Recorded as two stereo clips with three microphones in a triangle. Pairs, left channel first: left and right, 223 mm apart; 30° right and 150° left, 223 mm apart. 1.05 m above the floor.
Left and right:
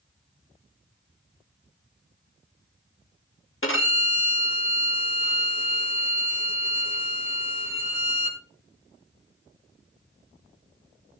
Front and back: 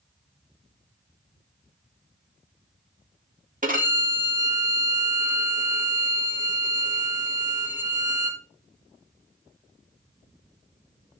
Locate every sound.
3.6 s a violin: 100° left, 1.8 m